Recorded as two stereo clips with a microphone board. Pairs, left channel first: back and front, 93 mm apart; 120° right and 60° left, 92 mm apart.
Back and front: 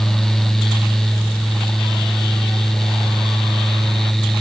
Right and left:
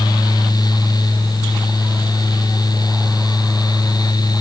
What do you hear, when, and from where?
Only background noise.